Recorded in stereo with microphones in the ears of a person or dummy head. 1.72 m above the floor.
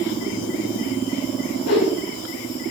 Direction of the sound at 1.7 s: 85° left.